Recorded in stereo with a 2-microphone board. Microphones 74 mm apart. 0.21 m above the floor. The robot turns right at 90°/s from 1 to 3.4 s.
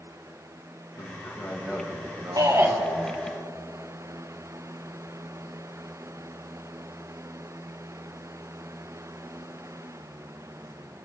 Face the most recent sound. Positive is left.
turn(degrees=35)